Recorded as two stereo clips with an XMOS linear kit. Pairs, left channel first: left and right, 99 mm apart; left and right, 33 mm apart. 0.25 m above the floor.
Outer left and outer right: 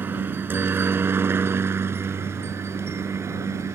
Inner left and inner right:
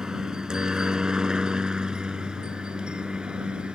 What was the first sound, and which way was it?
A helicopter, 20° right (ahead or behind).